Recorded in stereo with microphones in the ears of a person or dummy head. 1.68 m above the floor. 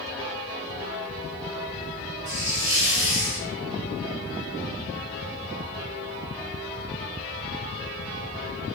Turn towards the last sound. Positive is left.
turn(degrees=-15)  # may be behind; listen again after turning